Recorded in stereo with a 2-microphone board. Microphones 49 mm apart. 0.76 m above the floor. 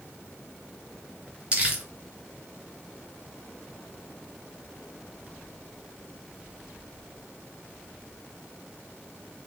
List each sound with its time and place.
1.5 s crumpling: 35° right (ahead or behind), 1.3 m